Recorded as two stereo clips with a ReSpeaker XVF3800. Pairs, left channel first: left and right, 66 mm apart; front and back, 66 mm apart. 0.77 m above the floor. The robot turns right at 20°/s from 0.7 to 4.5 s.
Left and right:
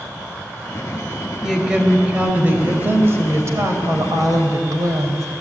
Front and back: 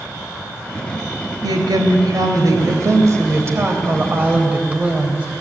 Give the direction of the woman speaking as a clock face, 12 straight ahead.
6 o'clock.